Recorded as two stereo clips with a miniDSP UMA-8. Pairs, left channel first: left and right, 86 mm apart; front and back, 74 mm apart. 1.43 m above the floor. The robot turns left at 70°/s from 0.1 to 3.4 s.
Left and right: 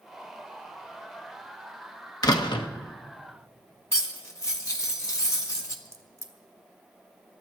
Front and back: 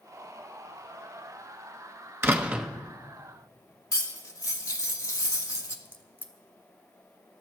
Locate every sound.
2.2 s a door slam: 130° left, 1.1 m; by 2.7 s 95° left, 1.1 m
3.9 s cutlery clinking: 40° left, 1.3 m
5.8 s a crack: 55° right, 1.5 m